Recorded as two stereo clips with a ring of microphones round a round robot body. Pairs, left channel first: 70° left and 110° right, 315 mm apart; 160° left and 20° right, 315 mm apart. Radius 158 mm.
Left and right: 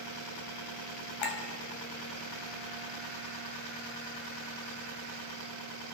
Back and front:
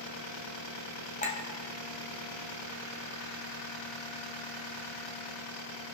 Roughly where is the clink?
Left.